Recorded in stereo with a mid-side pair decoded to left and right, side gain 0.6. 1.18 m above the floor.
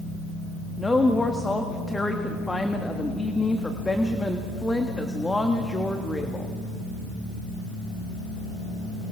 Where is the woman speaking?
15° left, 1.5 m.